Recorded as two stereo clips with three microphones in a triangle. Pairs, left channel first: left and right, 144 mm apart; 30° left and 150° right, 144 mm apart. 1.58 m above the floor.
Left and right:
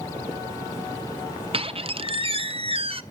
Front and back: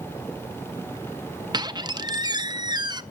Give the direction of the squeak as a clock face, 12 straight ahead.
4 o'clock.